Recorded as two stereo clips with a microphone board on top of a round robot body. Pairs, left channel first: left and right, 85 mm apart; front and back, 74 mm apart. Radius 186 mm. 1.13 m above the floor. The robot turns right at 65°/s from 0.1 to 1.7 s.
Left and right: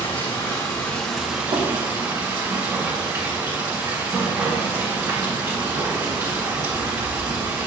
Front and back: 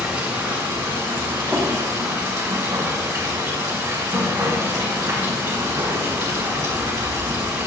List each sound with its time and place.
0.0 s running water: 115° left, 2 m; by 7.7 s 140° right, 2 m
1.5 s tapping: 100° right, 3.5 m; by 1.6 s 95° right, 3.5 m